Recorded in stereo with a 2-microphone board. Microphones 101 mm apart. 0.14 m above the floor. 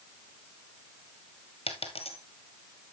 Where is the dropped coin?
70° left (ahead or behind), 1.5 m.